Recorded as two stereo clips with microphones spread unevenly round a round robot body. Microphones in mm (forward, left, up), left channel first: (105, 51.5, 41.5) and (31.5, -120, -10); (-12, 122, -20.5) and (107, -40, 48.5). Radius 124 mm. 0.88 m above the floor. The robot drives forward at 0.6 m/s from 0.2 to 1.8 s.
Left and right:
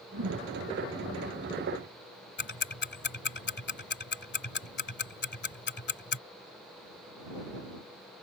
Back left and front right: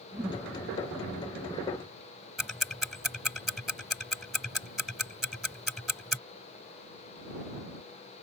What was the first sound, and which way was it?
A whoosh, 135° right.